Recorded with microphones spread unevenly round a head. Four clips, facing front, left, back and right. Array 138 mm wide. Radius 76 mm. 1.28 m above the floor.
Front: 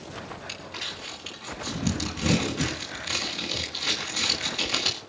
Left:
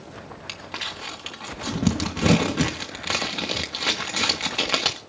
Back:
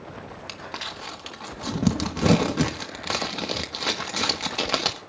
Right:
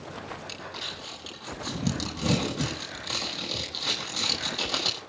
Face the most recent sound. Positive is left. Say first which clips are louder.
# left 3 dB, back 3 dB
turn(degrees=145)